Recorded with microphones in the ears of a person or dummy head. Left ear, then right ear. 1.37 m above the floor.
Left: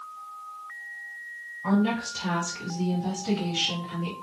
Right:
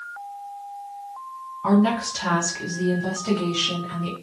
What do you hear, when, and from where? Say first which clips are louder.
1.6 s a woman speaking: right 6 dB; 55° right (ahead or behind), 1.6 m; by 4.1 s 5° left (ahead or behind), 1.5 m